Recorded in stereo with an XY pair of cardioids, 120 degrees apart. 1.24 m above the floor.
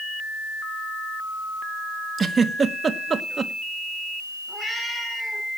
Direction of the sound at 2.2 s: 30° right.